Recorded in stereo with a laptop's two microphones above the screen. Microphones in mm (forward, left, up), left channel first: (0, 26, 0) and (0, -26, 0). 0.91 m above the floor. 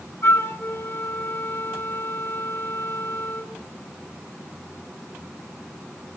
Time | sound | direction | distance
0.2 | a flute | 50° left (ahead or behind) | 2.5 m